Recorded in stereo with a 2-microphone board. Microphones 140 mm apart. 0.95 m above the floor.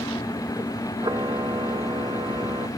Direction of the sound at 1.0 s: 35° right (ahead or behind).